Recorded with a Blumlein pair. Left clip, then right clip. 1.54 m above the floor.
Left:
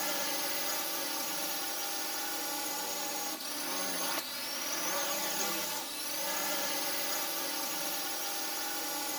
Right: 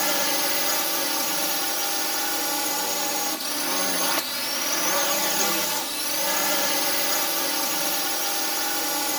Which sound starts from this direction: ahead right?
A drone, at 0.0 s.